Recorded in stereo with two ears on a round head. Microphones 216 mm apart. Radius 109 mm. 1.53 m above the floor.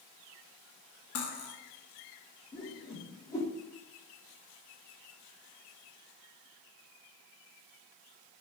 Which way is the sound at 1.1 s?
60° left (ahead or behind).